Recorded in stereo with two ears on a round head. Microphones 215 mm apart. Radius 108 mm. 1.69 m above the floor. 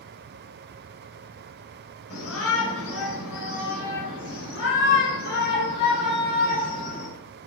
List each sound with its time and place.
2.1 s a shout: 70° left (ahead or behind), 6 m; by 7.1 s 40° left (ahead or behind), 5 m